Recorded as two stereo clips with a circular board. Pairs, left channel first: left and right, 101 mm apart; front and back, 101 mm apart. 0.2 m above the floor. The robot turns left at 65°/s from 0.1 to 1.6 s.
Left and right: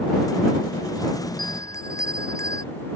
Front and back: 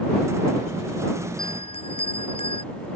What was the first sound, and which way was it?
A bell, 45° left.